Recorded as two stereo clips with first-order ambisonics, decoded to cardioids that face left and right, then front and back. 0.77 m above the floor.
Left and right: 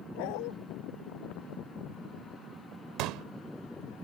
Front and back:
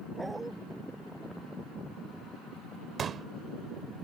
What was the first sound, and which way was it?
A dog barking, 95° left.